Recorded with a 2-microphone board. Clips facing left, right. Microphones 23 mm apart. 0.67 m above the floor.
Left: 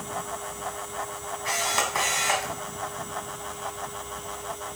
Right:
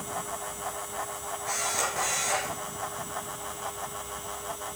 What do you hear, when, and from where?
1.4 s a camera shutter: 75° left (ahead or behind), 2.5 m